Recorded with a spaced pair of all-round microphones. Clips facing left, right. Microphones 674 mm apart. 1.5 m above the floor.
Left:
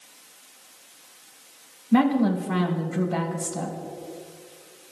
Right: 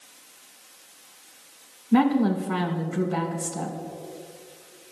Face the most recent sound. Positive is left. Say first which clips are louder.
# even
turn(degrees=10)  # may be behind; listen again after turning